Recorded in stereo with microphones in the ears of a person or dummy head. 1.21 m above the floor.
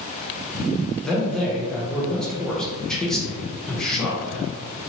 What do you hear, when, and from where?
1.0 s a man speaking: centre (ahead or behind), 0.6 m